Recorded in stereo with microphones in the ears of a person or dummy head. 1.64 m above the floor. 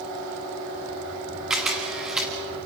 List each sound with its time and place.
1.5 s a camera shutter: 5° right (ahead or behind), 1.8 m